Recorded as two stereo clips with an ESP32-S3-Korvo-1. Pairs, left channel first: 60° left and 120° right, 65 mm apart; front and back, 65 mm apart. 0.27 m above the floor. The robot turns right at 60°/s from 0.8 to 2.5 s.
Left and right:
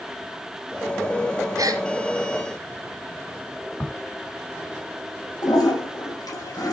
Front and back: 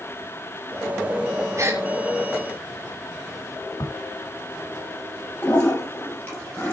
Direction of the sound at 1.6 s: 140° right.